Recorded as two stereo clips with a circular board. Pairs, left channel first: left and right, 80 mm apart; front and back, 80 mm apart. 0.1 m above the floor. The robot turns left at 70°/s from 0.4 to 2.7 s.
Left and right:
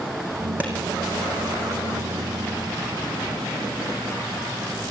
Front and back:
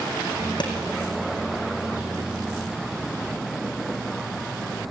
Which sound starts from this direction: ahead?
A clap, at 0.6 s.